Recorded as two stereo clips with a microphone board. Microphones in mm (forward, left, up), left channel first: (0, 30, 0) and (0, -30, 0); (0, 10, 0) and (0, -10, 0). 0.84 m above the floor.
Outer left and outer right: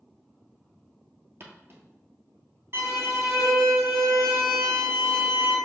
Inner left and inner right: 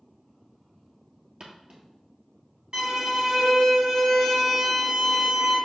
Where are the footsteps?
45° right (ahead or behind), 1.3 m.